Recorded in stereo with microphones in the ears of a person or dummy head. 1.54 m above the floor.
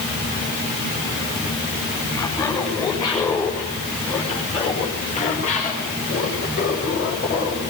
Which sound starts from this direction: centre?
Laughter, at 2.1 s.